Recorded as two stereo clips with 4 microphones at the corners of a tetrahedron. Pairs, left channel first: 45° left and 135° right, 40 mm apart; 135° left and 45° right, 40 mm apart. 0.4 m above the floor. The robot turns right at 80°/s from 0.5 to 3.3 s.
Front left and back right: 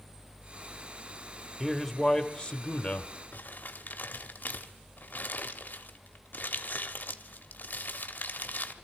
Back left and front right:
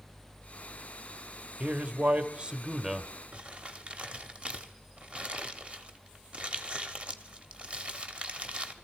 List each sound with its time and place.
1.6 s a man speaking: 70° right, 0.9 m; by 3.1 s 50° left, 0.9 m
3.3 s crumpling: 15° left, 0.9 m